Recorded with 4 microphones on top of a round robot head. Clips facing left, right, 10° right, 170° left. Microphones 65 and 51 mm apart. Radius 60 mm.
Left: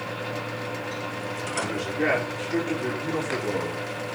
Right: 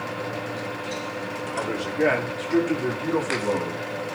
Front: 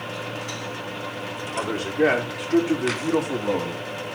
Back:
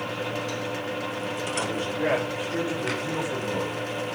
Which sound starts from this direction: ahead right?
A man speaking, at 1.6 s.